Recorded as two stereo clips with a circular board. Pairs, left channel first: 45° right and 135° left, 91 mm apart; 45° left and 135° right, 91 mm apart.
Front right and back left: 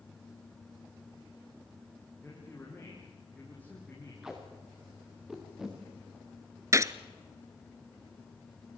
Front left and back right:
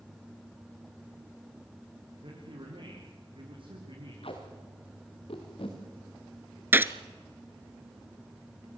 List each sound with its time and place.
2.2 s a man speaking: 115° right, 6.5 m
4.2 s tape being pulled: 50° left, 5 m
6.7 s a gunshot: 170° left, 0.7 m